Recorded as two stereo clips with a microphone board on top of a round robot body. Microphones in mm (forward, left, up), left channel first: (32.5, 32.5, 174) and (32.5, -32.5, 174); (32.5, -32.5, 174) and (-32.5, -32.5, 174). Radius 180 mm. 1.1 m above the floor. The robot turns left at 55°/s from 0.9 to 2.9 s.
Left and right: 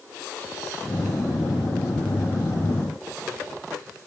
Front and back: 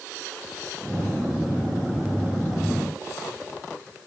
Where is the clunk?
I don't hear a clunk.